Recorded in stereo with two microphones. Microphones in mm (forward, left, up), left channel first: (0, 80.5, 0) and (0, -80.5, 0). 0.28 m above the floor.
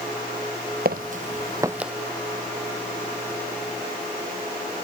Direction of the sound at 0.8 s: 70° right (ahead or behind).